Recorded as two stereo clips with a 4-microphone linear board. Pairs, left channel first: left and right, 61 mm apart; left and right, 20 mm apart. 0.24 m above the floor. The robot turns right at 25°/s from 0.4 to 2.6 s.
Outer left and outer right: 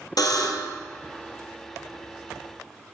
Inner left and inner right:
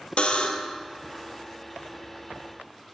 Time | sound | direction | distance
0.2 | a buzzer | 90° left | 1.0 m